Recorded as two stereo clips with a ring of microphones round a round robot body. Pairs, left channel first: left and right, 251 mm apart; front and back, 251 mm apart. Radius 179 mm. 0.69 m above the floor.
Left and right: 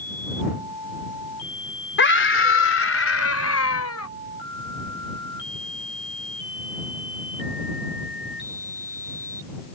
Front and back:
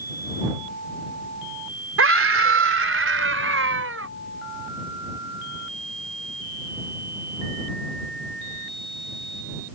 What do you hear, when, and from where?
2.0 s a scream: 140° left; by 4.1 s 130° left